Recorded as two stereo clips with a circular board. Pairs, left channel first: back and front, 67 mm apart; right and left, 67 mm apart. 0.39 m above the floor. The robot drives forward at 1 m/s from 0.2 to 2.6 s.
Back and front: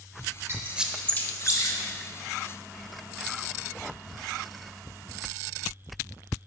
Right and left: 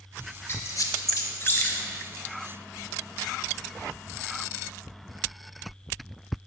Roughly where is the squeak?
Ahead right.